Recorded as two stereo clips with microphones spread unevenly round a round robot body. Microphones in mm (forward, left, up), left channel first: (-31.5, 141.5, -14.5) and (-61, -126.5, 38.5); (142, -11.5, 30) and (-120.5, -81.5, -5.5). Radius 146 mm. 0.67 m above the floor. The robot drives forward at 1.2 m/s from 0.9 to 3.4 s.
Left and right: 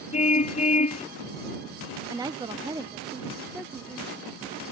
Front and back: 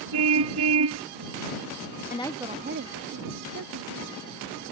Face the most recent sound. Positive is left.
turn(degrees=180)